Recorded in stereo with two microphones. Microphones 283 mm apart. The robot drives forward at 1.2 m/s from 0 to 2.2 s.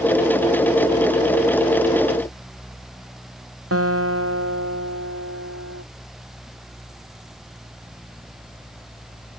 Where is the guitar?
55° right (ahead or behind).